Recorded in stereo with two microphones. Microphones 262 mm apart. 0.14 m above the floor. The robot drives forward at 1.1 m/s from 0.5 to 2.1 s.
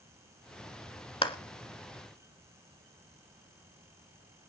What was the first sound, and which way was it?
A clap, 20° left (ahead or behind).